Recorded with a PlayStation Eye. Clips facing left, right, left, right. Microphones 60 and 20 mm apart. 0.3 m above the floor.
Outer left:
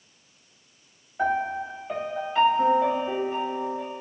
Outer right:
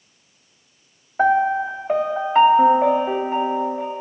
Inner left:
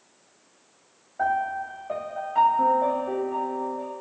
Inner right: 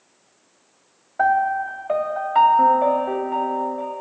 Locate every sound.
1.2 s a piano: 45° right (ahead or behind), 0.7 m